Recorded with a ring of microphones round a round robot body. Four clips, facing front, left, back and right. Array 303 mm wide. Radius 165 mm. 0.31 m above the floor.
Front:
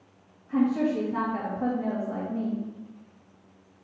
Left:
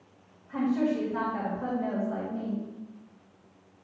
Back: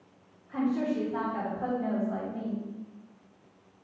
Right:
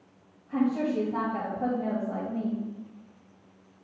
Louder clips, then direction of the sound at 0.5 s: Even, front 4 dB; 65° right.